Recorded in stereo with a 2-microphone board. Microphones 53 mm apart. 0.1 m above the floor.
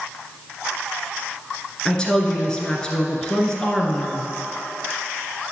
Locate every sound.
1.9 s a woman speaking: 15° left (ahead or behind), 1.4 m